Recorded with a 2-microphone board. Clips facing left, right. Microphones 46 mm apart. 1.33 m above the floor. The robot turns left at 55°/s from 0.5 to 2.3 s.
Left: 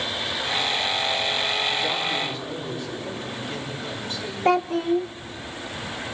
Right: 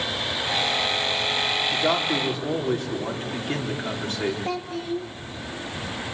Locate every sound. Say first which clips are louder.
1.7 s a man speaking: right 2 dB; 90° right, 4 m; by 4.3 s 120° right, 4 m
4.5 s a child speaking: left 8 dB; 55° left (ahead or behind), 0.5 m